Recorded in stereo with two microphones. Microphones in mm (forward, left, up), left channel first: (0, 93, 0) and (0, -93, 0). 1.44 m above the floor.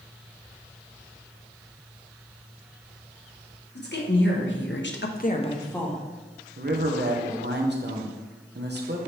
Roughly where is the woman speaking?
Left.